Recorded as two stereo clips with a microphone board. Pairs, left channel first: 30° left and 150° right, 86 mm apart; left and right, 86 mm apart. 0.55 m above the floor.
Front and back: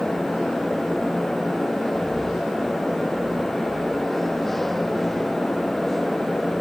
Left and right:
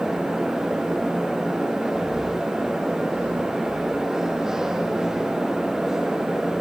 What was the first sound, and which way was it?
Only background noise.